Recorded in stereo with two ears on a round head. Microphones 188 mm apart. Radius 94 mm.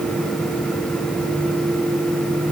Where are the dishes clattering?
I don't hear dishes clattering.